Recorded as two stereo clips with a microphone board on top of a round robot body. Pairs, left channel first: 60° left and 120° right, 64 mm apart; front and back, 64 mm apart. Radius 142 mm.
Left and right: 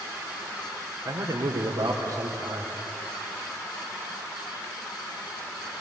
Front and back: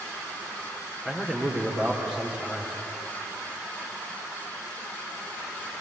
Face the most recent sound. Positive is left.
turn(degrees=-105)